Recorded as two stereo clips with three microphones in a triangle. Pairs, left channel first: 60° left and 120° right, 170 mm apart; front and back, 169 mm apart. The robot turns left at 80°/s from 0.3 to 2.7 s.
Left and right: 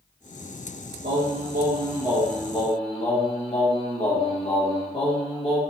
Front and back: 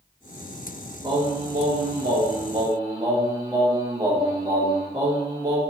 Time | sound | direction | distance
1.0 | singing | 115° right | 0.8 m